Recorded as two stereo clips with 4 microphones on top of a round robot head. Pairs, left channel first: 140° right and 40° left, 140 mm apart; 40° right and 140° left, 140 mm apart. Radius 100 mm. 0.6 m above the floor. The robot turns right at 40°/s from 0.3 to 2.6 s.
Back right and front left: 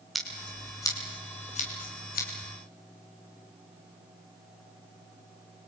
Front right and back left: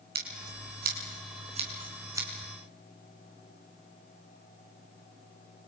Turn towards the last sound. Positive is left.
turn(degrees=-135)